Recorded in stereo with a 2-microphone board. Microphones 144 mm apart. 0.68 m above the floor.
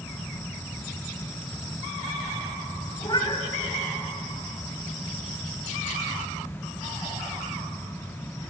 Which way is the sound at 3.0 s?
30° left (ahead or behind).